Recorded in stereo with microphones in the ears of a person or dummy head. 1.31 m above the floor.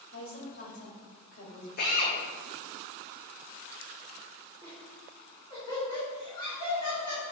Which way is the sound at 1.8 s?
50° left (ahead or behind).